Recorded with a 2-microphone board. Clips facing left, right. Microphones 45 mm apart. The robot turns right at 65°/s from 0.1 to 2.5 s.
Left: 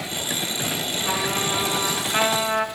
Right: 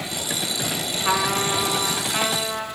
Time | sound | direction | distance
1.1 | a trumpet | 50° right | 0.6 m